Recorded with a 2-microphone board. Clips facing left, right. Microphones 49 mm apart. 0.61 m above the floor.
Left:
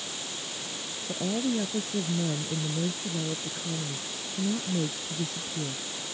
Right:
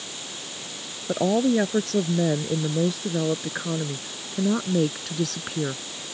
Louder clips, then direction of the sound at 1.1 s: Right 9 dB; 85° right.